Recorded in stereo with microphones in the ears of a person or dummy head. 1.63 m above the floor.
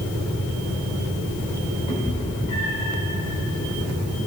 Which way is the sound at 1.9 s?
25° left (ahead or behind).